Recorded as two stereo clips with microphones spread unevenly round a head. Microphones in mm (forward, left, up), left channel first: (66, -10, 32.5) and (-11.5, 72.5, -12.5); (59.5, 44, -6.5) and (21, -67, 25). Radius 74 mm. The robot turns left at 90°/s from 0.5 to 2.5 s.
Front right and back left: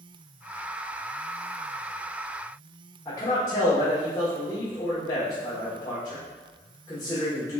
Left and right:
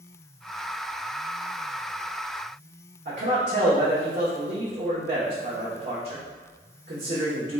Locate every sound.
3.0 s a man speaking: 120° right, 1.2 m